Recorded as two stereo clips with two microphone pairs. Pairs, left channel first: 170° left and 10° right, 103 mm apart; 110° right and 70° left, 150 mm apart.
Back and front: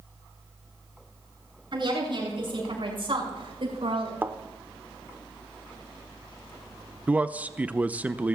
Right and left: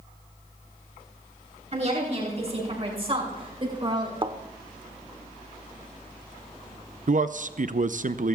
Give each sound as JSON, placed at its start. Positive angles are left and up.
{"t": 1.7, "sound": "a woman speaking", "azimuth_deg": 25, "distance_m": 7.5}
{"t": 4.2, "sound": "a thud", "azimuth_deg": 45, "distance_m": 0.9}
{"t": 7.1, "sound": "a man speaking", "azimuth_deg": 60, "distance_m": 0.6}